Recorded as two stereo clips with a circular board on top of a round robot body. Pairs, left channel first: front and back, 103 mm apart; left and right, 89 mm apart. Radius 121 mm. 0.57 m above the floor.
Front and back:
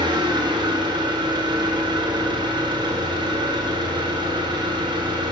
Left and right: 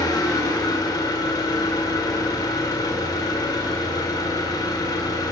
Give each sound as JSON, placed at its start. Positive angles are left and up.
{"t": 0.0, "sound": "an engine running", "azimuth_deg": 135, "distance_m": 2.0}